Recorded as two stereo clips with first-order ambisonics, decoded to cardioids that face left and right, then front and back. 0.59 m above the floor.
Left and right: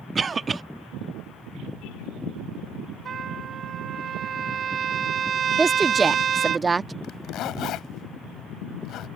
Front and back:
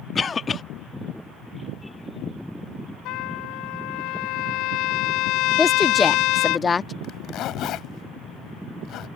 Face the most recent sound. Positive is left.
turn(degrees=45)